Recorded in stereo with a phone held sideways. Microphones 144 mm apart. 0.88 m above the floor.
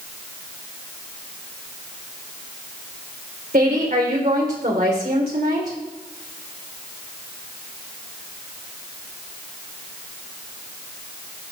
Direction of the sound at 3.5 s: 80° right.